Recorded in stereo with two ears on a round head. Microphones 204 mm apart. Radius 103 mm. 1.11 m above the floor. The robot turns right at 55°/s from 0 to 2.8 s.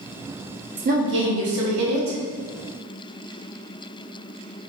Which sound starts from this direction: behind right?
A woman speaking, at 0.8 s.